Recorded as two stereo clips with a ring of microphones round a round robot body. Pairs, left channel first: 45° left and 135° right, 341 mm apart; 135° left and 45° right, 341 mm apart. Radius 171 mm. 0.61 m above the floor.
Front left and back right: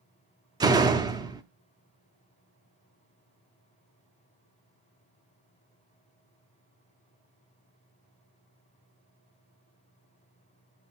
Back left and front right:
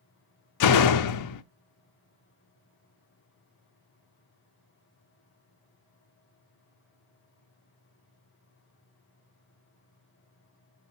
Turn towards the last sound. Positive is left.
turn(degrees=150)